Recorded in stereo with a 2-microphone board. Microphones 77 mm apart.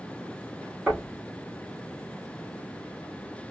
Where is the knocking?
15° right (ahead or behind), 5 m.